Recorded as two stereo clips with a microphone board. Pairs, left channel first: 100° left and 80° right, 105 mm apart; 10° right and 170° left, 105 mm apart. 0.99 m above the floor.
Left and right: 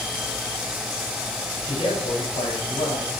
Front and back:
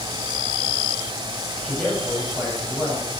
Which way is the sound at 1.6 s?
75° left.